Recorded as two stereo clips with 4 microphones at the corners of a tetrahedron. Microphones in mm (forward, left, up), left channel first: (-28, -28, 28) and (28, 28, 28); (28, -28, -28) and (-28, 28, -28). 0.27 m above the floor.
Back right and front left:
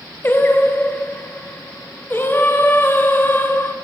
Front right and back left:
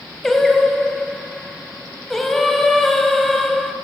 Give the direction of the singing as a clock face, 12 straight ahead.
4 o'clock.